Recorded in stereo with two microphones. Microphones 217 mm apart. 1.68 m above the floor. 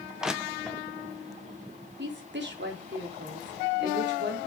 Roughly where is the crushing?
Centre.